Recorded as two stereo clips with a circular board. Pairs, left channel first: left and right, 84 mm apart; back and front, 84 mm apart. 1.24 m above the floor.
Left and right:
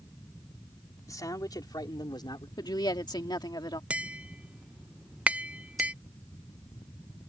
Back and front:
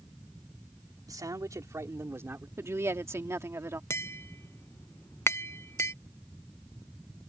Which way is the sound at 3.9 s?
155° right.